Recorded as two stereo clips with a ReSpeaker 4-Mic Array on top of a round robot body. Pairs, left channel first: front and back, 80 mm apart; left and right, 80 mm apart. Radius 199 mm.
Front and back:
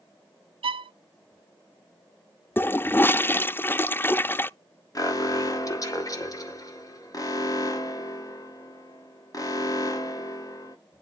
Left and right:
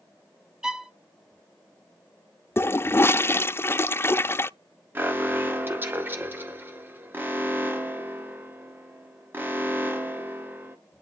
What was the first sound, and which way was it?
A violin, 170° right.